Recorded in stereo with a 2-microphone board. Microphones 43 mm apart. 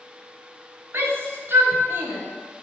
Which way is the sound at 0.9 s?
65° right (ahead or behind).